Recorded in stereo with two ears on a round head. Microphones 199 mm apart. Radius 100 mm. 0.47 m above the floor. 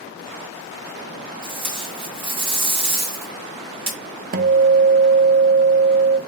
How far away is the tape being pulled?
About 3 m.